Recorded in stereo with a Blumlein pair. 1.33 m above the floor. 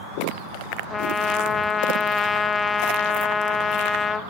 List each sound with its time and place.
0.9 s a trumpet: 15° left, 0.6 m